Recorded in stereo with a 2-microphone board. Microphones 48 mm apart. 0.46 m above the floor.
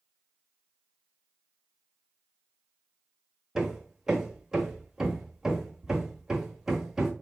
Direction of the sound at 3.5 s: 10° right (ahead or behind).